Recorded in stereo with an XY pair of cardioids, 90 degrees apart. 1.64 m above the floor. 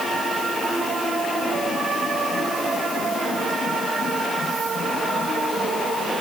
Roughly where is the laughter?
No laughter in this recording.